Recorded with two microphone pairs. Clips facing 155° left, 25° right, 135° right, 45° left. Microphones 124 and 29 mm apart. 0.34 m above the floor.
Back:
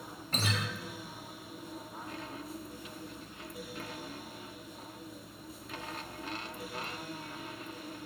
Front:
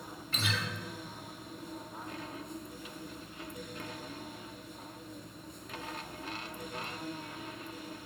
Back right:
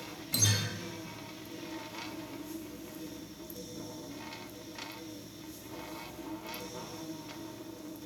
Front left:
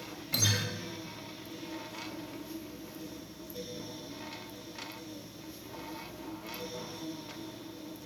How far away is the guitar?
About 0.6 m.